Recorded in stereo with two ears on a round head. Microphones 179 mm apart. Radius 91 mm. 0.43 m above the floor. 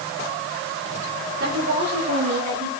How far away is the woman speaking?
About 7.5 m.